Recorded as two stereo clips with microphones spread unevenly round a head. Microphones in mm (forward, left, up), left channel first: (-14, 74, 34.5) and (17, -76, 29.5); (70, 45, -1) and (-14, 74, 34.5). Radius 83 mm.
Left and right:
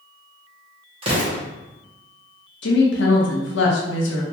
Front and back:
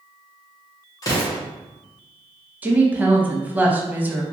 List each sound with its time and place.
1.0 s an explosion: 80° right, 0.7 m
2.6 s a woman speaking: 90° left, 0.7 m